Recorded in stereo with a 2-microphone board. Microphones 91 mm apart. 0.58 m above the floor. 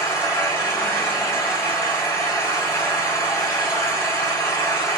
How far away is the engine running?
About 3 m.